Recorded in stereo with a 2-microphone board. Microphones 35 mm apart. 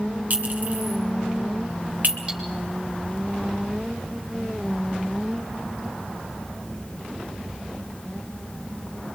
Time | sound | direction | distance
0.3 | a clink | 50° right (ahead or behind) | 2.5 m
2.3 | cutlery clinking | 20° right (ahead or behind) | 5.5 m